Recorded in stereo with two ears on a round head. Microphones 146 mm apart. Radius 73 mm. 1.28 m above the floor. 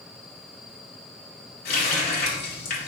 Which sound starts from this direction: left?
A running tap, at 1.6 s.